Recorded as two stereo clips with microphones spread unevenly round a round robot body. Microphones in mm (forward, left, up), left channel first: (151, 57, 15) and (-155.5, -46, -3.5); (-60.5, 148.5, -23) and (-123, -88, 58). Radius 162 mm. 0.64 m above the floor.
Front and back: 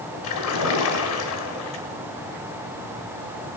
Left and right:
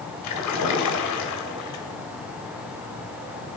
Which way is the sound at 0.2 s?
60° left.